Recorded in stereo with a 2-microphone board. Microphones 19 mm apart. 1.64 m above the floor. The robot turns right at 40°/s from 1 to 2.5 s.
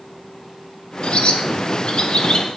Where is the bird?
75° left (ahead or behind), 1.5 m; by 2.6 s 45° left (ahead or behind), 1.5 m.